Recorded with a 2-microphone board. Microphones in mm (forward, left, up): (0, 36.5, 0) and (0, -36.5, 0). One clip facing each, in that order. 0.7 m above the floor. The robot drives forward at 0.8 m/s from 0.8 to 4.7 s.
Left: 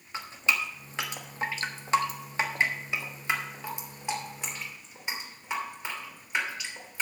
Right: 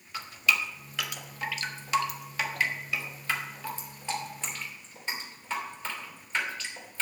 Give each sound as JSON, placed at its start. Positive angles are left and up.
{"t": 0.1, "sound": "dripping", "side_deg": 30, "distance_m": 1.2}